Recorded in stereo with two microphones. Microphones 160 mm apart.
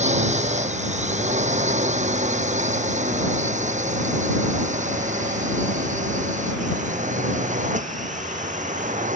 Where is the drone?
45° right (ahead or behind); by 9.2 s 50° right (ahead or behind).